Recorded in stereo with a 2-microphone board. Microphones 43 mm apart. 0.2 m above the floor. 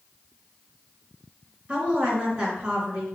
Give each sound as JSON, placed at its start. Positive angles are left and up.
{"t": 1.7, "sound": "a woman speaking", "side_deg": -25, "distance_m": 3.0}